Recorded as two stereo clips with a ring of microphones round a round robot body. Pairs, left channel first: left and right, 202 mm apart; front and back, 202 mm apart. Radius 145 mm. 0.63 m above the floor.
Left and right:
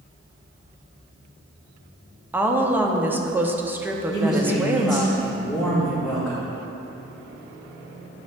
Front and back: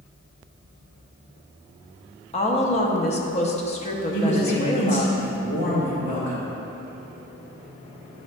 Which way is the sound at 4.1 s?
5° left.